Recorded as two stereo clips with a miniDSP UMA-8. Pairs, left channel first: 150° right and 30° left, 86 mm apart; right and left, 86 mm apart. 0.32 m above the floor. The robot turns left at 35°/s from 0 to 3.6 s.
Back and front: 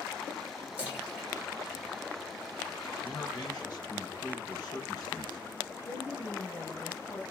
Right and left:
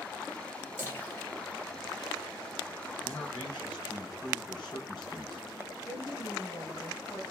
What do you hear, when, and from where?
0.8 s a splash: 35° right, 2 m; by 2.8 s 100° right, 2 m
3.0 s a man speaking: 100° right, 2.5 m; by 5.5 s 120° right, 2.5 m
5.8 s a woman speaking: 135° right, 3 m